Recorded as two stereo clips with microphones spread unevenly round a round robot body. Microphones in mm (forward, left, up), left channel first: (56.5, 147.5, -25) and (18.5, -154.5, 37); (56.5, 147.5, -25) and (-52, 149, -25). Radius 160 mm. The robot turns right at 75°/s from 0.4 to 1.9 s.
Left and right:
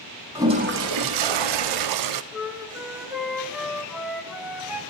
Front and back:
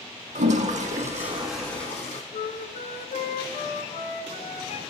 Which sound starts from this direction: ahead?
A flute, at 2.3 s.